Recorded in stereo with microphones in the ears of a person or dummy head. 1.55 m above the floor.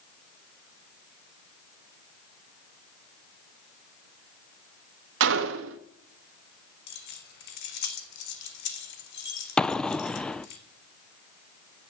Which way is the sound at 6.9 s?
55° left (ahead or behind).